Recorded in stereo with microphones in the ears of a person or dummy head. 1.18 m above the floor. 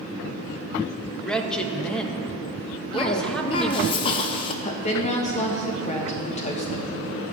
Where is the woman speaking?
40° left (ahead or behind), 1.4 m.